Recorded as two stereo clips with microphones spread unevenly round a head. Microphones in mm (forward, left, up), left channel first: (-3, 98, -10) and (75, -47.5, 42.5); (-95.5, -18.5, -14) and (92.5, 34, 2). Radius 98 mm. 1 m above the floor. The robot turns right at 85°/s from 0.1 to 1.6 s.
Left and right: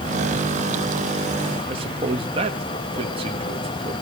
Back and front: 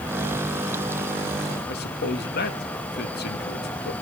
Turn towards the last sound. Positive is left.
turn(degrees=-130)